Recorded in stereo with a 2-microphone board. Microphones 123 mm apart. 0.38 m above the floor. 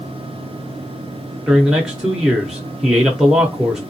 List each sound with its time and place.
1.5 s a man speaking: 5° right (ahead or behind), 0.8 m